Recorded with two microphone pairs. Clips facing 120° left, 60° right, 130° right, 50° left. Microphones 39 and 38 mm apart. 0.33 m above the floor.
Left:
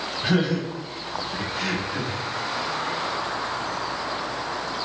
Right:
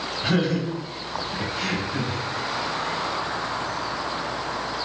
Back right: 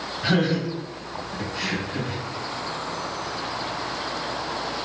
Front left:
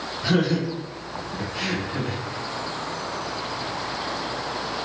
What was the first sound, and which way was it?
Laughter, 140° right.